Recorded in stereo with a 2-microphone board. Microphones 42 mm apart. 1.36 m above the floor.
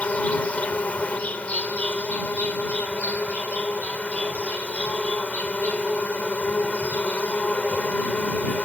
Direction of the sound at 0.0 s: 40° left (ahead or behind).